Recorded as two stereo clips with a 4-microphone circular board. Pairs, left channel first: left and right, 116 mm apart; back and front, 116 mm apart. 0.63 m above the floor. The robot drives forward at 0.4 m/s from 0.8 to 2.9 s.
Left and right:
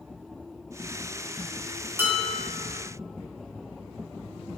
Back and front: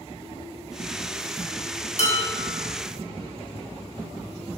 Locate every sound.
2.0 s dishes clattering: 160° right, 3.5 m